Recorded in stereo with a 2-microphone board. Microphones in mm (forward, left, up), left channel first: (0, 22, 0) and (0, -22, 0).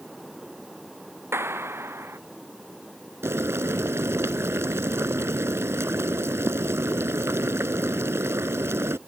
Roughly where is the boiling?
Right.